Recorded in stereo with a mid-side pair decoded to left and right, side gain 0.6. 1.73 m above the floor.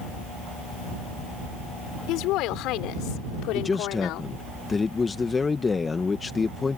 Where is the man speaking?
20° left.